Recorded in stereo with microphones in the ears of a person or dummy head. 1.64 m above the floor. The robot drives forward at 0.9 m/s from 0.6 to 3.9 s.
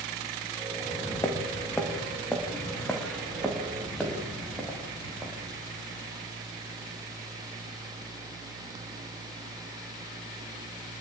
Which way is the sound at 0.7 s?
25° left (ahead or behind).